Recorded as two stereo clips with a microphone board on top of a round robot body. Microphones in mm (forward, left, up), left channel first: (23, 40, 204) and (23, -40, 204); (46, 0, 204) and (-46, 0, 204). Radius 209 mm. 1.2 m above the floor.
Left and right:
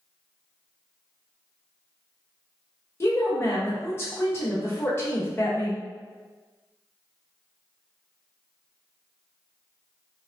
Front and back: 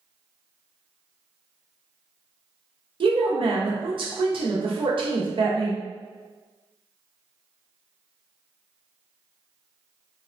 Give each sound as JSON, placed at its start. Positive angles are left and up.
{"t": 3.0, "sound": "a woman speaking", "azimuth_deg": 150, "distance_m": 0.7}